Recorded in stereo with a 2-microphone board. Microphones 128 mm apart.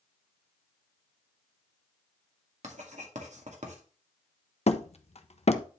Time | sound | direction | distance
2.6 | writing | 65° right (ahead or behind) | 1.9 m
4.7 | hammering | 55° left (ahead or behind) | 0.7 m